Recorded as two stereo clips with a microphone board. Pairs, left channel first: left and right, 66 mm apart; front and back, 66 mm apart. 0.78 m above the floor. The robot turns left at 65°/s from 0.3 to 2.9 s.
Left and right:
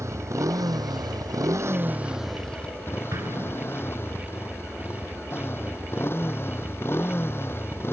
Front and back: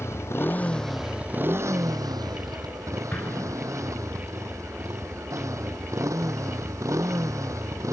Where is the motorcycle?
50° right; by 7.9 s 145° left.